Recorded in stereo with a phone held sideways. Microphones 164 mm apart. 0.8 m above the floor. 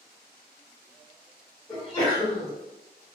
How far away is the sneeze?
About 2.0 m.